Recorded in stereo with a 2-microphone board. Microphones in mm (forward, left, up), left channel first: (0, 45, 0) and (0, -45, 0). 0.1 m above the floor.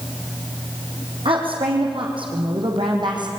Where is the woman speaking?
75° right (ahead or behind), 5 m; by 3.3 s 55° right (ahead or behind), 5 m.